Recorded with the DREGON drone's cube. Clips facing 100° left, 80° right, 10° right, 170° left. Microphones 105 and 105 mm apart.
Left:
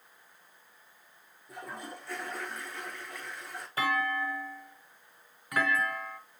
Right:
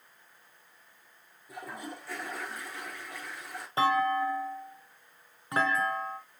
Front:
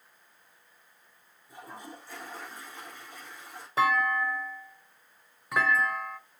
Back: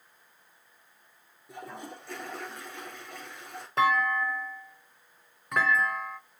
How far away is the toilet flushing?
About 4 m.